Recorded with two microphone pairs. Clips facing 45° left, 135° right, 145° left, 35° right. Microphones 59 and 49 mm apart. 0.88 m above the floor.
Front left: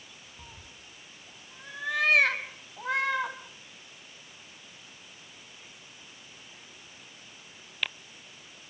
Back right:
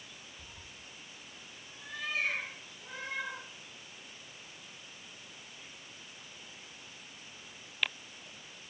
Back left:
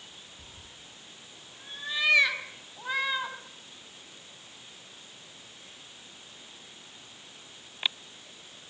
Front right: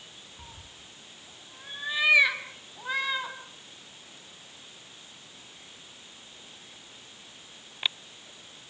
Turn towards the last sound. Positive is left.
turn(degrees=60)